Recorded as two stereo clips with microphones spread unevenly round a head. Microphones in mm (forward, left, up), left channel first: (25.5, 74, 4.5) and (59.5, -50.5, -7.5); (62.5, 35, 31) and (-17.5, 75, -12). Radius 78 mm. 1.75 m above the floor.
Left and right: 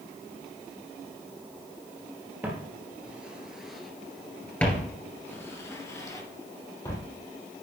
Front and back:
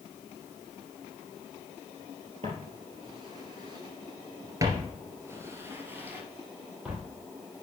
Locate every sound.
2.4 s footsteps: 145° right, 2 m; by 7.0 s 55° left, 2.5 m